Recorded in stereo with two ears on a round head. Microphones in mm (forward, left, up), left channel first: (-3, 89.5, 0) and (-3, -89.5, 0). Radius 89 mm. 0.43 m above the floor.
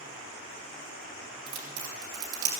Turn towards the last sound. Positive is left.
turn(degrees=-85)